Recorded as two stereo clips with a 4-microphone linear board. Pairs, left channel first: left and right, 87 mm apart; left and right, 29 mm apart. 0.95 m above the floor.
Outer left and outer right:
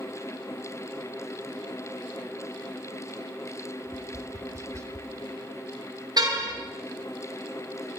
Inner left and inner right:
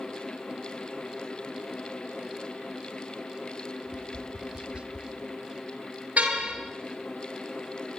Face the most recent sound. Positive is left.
turn(degrees=-55)  # may be behind; listen again after turning